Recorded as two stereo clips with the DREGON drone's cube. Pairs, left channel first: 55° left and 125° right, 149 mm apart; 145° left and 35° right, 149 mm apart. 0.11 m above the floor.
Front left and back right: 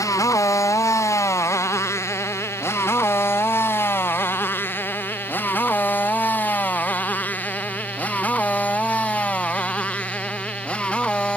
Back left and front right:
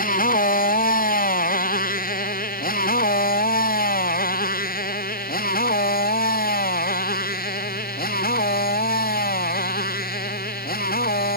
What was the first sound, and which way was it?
A motorcycle, 125° left.